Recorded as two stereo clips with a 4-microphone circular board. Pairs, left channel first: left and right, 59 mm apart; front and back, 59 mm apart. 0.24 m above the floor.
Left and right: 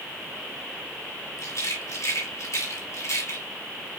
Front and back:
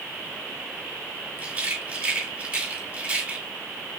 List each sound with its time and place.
1.4 s a rattle: 110° left, 3.5 m